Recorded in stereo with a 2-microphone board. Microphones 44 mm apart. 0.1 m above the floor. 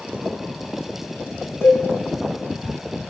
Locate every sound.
1.6 s a cowbell: 65° left (ahead or behind), 1.1 m